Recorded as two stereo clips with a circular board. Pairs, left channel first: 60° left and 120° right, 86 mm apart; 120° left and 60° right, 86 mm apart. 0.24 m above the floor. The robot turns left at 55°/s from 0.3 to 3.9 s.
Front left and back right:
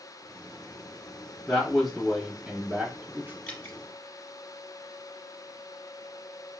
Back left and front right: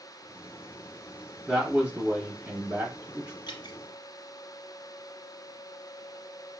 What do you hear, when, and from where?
1.5 s a man speaking: 5° right, 1.0 m; by 3.4 s 110° right, 1.0 m
3.5 s dripping: 130° left, 1.0 m; by 3.8 s 115° left, 1.0 m